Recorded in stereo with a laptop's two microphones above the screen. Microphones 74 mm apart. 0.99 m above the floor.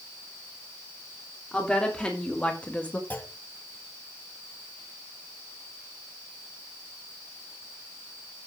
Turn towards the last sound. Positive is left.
turn(degrees=25)  # may be behind; listen again after turning